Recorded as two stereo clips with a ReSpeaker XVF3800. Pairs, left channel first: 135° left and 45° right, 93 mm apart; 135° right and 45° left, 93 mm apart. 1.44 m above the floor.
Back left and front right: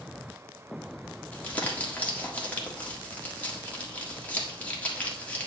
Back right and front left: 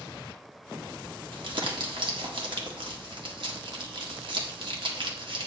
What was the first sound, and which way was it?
Crumpling, 60° left.